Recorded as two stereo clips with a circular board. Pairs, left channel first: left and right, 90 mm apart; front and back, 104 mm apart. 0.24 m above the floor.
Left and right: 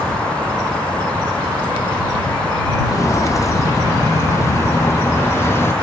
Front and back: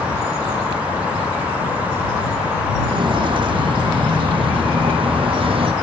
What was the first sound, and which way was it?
Footsteps, 140° left.